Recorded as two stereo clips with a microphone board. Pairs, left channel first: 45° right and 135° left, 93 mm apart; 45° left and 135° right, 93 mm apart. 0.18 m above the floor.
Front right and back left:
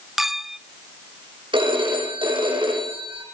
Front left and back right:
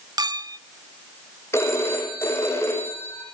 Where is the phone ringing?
105° left, 5.5 m.